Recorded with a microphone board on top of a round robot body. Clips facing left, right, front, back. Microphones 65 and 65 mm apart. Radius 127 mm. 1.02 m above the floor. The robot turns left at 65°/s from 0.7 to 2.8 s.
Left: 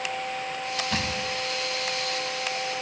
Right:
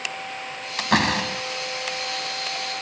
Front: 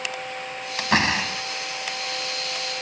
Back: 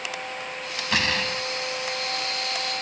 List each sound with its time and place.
0.8 s a door slam: 50° right; by 1.4 s 90° right